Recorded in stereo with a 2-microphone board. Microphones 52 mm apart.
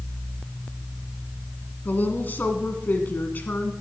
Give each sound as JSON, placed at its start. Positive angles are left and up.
{"t": 1.9, "sound": "a woman speaking", "side_deg": 35, "distance_m": 1.5}